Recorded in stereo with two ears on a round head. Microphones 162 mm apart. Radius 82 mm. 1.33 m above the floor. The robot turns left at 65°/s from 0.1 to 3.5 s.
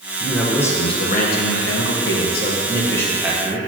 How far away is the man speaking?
About 1.2 m.